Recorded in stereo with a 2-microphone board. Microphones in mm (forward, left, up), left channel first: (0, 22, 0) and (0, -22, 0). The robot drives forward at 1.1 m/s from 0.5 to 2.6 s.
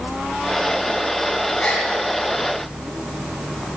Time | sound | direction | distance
1.6 | a gasp | 25° left (ahead or behind) | 3 m